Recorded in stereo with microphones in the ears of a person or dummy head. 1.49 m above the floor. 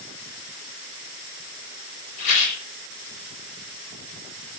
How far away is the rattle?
About 2 m.